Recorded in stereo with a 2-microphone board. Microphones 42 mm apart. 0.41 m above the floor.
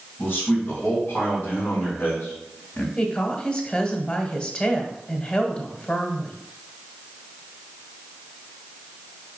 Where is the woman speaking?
30° left (ahead or behind), 1.4 m.